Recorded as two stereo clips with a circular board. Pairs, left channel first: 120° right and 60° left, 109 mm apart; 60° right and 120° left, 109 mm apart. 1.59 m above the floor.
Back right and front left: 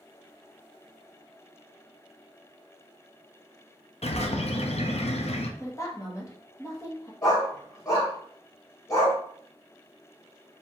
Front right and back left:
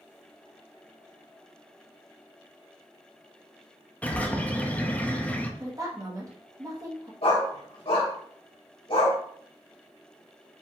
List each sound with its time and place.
4.0 s a bird: 135° right, 0.6 m
5.6 s a woman speaking: straight behind, 1.3 m
7.2 s a dog barking: 70° right, 2 m